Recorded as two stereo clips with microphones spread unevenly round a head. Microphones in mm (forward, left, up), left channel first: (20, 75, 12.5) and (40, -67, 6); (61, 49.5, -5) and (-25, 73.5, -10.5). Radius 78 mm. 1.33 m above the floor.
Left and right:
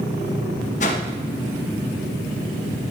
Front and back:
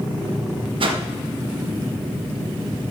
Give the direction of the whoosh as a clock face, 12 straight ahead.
7 o'clock.